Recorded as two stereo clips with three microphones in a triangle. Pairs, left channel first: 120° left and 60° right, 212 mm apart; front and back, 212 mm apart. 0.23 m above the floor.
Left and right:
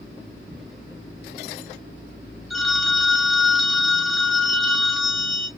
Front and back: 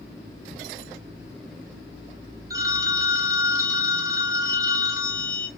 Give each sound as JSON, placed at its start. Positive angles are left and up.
{"t": 0.5, "sound": "ticking", "azimuth_deg": -35, "distance_m": 0.7}
{"t": 2.5, "sound": "a phone ringing", "azimuth_deg": -155, "distance_m": 0.5}